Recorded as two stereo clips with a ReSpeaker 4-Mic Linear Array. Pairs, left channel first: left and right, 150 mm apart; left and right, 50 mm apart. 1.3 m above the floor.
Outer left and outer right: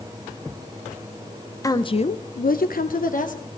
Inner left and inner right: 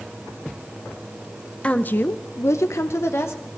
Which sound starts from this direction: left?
A woman speaking, at 1.6 s.